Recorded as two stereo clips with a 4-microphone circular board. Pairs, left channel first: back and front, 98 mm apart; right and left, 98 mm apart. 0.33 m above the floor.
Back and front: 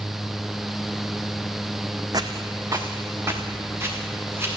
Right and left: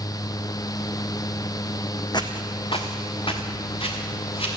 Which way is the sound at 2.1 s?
50° right.